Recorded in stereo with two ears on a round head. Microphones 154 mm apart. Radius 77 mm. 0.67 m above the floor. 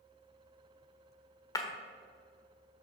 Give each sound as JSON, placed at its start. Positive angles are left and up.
{"t": 1.6, "sound": "breaking glass", "side_deg": 20, "distance_m": 1.2}